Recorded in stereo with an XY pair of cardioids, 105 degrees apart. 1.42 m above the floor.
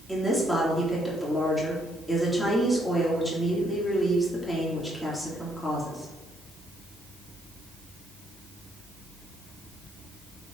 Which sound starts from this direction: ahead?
A woman speaking, at 0.1 s.